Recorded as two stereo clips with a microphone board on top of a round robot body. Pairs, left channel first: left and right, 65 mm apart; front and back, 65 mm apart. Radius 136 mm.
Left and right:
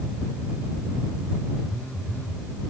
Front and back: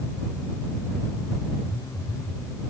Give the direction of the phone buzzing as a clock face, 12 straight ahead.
11 o'clock.